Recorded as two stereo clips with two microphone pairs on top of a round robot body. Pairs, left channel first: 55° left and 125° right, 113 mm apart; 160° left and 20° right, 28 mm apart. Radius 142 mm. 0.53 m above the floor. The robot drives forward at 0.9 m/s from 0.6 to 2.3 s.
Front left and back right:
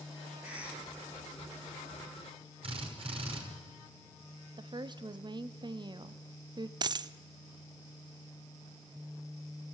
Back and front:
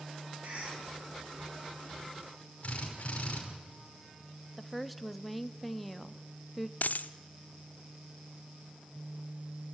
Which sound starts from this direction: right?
A woman speaking, at 4.6 s.